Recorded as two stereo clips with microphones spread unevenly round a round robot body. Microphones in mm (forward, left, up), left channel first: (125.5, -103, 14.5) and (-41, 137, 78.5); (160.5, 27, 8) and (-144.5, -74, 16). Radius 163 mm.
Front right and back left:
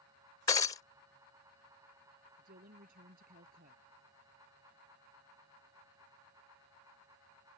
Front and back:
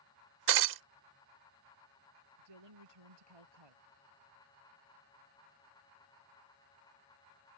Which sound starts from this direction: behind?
A woman speaking, at 2.4 s.